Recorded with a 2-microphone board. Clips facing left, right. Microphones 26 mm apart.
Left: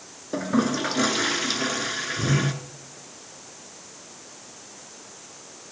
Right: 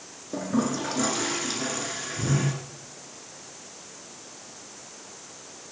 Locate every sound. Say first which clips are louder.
0.3 s a toilet flushing: left 3 dB; 35° left (ahead or behind), 1.5 m